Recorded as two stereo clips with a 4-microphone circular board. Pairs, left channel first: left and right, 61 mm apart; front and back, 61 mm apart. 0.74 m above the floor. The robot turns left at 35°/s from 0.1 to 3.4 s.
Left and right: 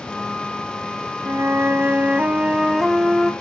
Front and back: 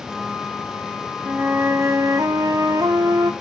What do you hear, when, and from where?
1.2 s a flute: 120° right, 0.8 m; by 3.3 s 170° left, 0.8 m